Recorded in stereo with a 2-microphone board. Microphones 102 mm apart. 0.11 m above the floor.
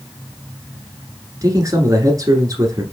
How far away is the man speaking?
About 1.5 m.